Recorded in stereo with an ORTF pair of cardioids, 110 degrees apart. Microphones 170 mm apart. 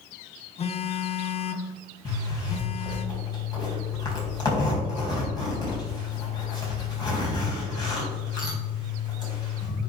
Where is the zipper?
25° left, 4 m.